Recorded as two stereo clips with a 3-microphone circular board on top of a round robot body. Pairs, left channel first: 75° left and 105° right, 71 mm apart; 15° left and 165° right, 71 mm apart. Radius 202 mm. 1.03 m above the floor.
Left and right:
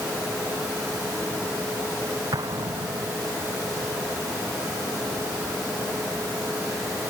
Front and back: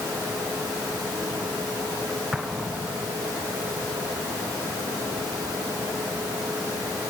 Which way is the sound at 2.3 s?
80° right.